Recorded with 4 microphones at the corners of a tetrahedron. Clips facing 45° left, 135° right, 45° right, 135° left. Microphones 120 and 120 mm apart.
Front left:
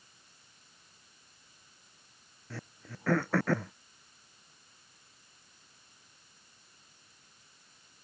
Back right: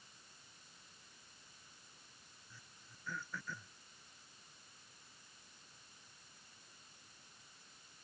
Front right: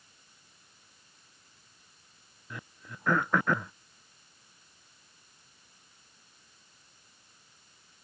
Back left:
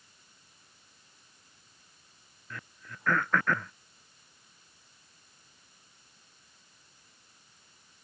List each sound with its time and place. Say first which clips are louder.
2.5 s throat clearing: front left 20 dB, front right 1 dB; 30° left